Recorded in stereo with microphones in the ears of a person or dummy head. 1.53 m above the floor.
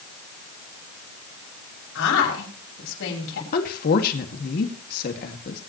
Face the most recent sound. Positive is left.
turn(degrees=50)  # may be behind; listen again after turning